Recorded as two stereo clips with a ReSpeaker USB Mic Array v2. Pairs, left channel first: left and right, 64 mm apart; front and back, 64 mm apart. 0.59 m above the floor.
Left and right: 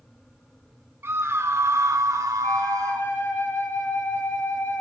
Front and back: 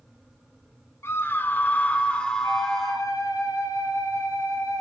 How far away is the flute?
About 7.5 m.